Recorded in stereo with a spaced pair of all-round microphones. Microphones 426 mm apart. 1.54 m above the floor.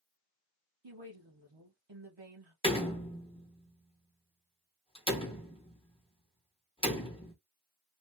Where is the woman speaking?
80° right, 1.3 m.